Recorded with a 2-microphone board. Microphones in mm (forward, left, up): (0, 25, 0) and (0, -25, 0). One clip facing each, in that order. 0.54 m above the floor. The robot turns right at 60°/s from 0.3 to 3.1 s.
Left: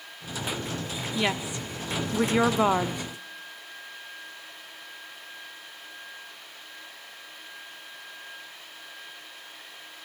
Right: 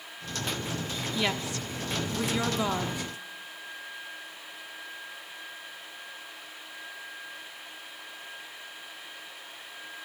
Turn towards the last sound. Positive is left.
turn(degrees=135)